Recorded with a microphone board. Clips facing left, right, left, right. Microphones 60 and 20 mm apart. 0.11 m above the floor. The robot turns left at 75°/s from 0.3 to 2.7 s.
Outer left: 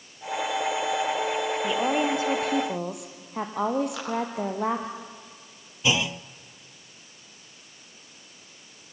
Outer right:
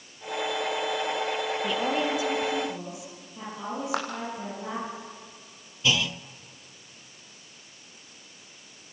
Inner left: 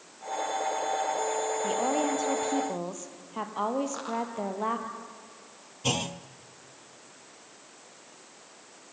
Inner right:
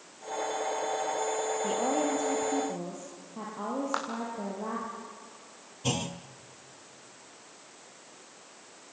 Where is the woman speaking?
Straight behind, 3 m; by 4.9 s 100° left, 3 m.